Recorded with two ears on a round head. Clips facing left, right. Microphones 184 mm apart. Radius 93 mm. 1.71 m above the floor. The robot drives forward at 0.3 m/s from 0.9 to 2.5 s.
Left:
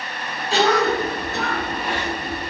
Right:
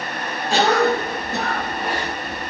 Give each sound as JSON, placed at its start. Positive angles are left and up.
{"t": 0.5, "sound": "a cough", "side_deg": -45, "distance_m": 1.5}